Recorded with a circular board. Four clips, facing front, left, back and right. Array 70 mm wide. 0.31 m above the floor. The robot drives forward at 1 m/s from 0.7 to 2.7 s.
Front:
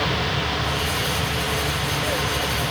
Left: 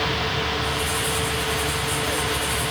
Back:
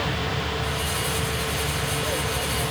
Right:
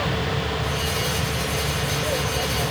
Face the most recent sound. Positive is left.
turn(degrees=-75)